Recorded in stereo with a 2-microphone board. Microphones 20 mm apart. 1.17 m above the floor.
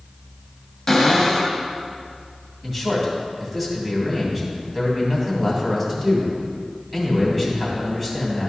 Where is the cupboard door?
5° left (ahead or behind), 1.8 m.